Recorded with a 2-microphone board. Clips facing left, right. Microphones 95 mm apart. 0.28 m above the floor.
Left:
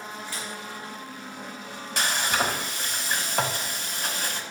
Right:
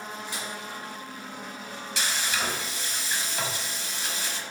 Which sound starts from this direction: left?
Frying, at 2.0 s.